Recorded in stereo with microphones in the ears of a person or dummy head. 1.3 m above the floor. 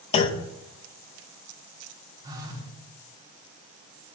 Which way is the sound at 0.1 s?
30° left (ahead or behind).